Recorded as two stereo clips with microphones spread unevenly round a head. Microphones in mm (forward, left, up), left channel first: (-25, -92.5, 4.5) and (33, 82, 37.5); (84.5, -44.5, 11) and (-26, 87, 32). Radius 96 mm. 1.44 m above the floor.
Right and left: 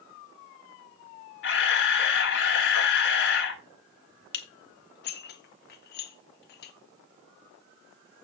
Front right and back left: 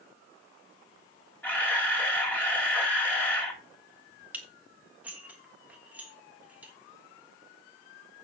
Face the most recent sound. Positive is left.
turn(degrees=-150)